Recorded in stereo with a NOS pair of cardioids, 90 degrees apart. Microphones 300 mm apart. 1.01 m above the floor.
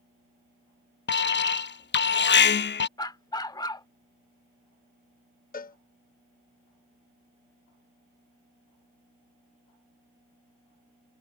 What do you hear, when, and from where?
1.1 s an alarm: 35° left
3.0 s a dog barking: 15° left
5.5 s a cowbell: 30° left